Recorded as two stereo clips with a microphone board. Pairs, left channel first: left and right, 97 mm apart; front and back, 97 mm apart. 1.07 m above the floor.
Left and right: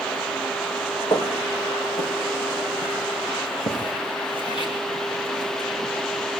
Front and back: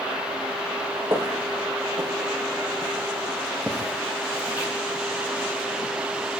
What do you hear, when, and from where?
1.1 s footsteps: 130° left, 5 m; by 5.7 s 100° left, 9 m